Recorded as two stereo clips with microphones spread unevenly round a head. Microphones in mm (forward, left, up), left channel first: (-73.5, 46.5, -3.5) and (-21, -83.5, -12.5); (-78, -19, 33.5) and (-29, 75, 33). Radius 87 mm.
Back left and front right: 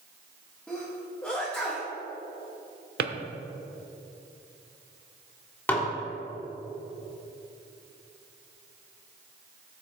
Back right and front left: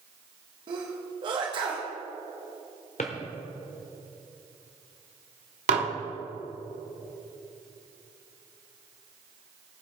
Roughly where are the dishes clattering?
Ahead left.